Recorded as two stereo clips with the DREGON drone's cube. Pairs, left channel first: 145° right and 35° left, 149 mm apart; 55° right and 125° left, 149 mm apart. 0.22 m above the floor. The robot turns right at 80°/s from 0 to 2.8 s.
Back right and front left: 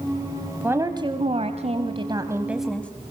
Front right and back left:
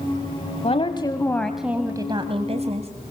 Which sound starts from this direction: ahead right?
A woman speaking, at 0.6 s.